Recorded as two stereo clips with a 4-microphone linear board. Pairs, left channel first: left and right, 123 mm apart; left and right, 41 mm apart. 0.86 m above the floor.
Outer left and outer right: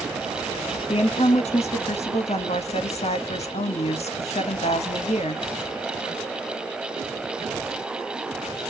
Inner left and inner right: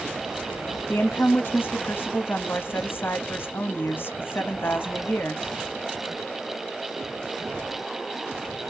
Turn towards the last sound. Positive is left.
turn(degrees=60)  # may be behind; listen again after turning